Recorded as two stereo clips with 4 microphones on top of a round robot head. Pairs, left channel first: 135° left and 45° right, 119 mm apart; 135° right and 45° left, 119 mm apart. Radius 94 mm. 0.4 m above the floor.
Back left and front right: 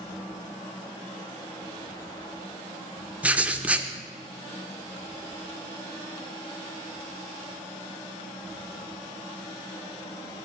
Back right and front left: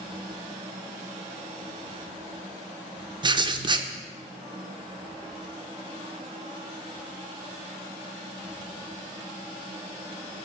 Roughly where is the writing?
Ahead left.